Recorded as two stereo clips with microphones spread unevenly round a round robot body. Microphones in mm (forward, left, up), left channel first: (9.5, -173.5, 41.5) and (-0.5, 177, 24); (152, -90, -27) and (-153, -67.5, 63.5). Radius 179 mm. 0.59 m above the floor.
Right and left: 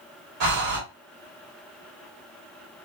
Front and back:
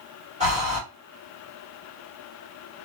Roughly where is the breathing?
Left.